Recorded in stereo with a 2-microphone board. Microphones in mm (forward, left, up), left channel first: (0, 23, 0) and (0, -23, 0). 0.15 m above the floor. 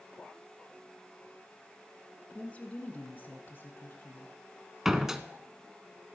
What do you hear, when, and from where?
2.3 s a woman speaking: 25° left (ahead or behind), 1.3 m; by 4.3 s 50° left (ahead or behind), 1.9 m
4.8 s a door slam: 10° right (ahead or behind), 0.8 m